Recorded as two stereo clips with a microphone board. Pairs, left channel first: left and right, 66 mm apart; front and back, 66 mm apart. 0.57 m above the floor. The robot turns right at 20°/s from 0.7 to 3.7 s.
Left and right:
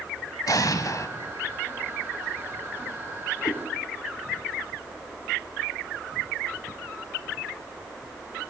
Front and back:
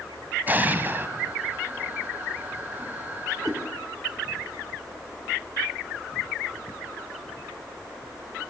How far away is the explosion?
About 1.4 m.